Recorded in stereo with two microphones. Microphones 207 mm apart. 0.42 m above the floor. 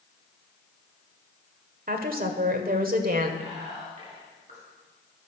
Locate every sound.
1.9 s a woman speaking: 45° right (ahead or behind), 1.8 m
3.4 s whispering: 35° right (ahead or behind), 6 m